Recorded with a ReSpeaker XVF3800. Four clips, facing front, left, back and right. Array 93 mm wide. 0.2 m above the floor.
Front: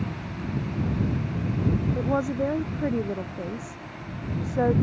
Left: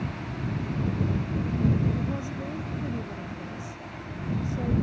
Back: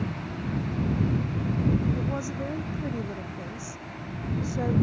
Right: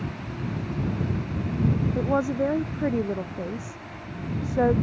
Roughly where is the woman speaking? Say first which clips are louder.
Right 8 dB, front 6 dB; ahead right.